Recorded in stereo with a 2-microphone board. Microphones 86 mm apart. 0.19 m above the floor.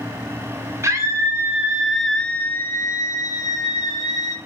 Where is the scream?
35° right (ahead or behind), 1.6 m; by 4.3 s 50° left (ahead or behind), 2.5 m.